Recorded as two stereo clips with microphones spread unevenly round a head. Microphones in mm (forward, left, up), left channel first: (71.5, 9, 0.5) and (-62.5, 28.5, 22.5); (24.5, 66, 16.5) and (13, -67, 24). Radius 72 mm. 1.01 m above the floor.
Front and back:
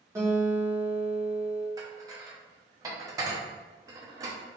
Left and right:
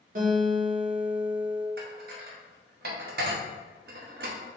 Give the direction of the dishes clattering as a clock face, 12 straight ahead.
4 o'clock.